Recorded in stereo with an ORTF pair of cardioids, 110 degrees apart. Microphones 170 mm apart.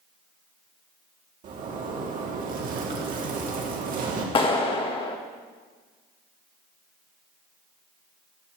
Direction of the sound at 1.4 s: 55° right.